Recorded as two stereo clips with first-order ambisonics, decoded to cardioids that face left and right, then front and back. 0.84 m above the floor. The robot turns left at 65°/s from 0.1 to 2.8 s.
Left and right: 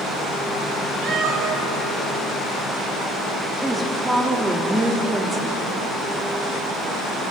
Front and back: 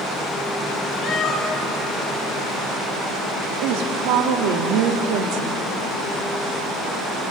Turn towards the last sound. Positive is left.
turn(degrees=180)